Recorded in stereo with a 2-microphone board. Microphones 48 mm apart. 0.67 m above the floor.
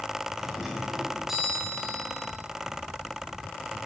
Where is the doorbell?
10° right (ahead or behind), 7 m.